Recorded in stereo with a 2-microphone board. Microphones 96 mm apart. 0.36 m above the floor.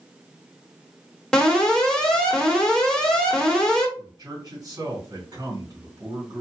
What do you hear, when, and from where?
1.3 s an alarm: 5° left (ahead or behind), 1.2 m
4.0 s a man speaking: 35° right (ahead or behind), 2.5 m